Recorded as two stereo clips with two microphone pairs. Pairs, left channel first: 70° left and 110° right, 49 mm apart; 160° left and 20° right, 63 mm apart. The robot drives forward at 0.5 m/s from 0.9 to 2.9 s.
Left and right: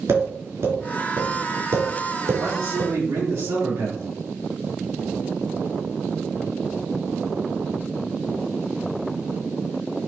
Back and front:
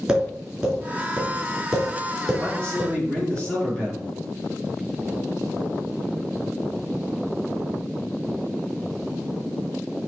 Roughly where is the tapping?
Right.